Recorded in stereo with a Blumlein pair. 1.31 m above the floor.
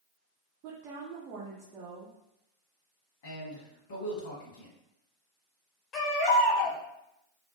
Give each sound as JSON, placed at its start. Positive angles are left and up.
{"t": 0.6, "sound": "a woman speaking", "azimuth_deg": -35, "distance_m": 0.5}
{"t": 3.2, "sound": "a man speaking", "azimuth_deg": 55, "distance_m": 1.1}
{"t": 5.9, "sound": "a baby crying", "azimuth_deg": 30, "distance_m": 0.9}